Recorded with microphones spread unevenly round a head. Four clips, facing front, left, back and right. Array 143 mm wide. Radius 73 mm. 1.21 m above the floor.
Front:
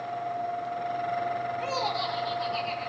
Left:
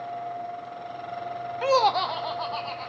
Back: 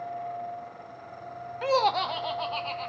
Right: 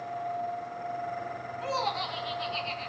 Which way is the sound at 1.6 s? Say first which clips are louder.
Left 10 dB, back 5 dB; 95° left.